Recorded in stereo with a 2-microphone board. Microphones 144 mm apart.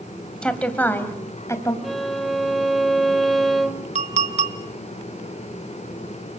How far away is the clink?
About 1.4 m.